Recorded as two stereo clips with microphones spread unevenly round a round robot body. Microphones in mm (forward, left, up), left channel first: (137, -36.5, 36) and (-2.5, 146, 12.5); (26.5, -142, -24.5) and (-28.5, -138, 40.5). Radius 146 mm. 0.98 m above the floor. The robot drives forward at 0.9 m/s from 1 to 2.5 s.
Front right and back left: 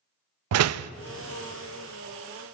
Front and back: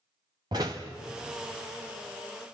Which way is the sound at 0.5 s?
120° left.